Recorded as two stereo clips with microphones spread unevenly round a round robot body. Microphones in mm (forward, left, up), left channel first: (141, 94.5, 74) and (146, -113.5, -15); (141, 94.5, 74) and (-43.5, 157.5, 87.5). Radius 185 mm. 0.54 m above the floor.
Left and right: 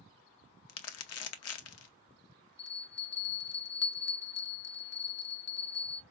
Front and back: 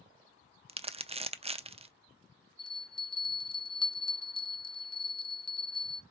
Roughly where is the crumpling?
Left.